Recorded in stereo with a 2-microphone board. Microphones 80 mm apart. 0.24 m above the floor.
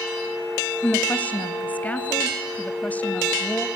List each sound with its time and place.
0.8 s a woman speaking: 20° left (ahead or behind), 1.0 m